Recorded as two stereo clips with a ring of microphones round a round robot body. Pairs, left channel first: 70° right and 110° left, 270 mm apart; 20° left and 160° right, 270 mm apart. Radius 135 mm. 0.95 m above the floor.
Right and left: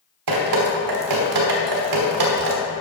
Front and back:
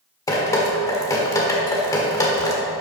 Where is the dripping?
100° left, 1.2 m.